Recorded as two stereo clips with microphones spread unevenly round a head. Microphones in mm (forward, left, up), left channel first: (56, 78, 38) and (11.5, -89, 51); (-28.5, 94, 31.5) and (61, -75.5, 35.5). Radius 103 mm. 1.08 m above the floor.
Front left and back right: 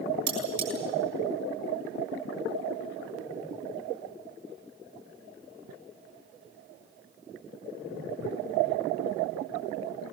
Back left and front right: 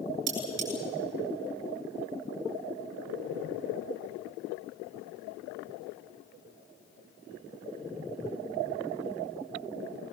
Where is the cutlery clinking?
75° right, 9.5 m.